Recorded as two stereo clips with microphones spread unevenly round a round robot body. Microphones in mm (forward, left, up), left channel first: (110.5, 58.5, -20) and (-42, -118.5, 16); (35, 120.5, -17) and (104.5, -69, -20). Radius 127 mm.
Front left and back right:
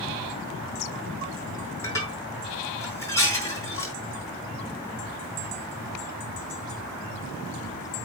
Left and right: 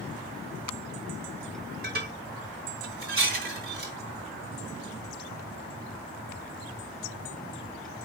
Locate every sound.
1.8 s dishes clattering: 30° right, 5 m